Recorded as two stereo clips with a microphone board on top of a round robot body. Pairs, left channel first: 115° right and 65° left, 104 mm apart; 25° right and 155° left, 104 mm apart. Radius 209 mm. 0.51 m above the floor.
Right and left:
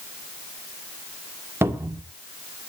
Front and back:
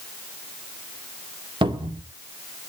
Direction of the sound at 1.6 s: 130° left.